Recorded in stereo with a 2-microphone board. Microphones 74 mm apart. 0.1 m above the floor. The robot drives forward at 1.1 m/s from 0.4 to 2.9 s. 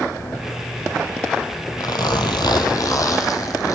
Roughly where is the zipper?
Left.